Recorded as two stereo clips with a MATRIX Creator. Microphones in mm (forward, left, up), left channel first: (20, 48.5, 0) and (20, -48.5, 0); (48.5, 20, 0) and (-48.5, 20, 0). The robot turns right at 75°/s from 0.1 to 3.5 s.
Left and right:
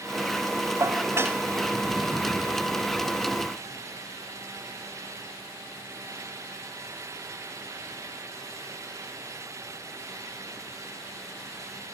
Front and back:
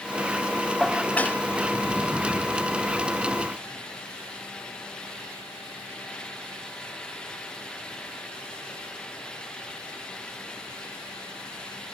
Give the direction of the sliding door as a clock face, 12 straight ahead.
No sliding door in this recording.